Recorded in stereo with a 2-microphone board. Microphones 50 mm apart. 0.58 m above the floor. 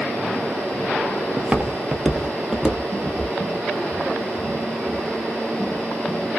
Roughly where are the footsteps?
Right.